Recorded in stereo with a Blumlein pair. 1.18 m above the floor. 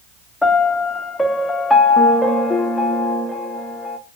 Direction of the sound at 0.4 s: 5° left.